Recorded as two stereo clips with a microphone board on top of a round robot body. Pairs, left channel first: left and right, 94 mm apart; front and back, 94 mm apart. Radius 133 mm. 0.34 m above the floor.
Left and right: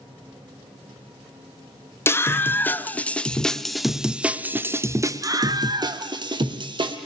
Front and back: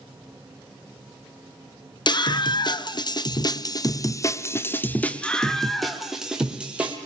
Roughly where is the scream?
Ahead left.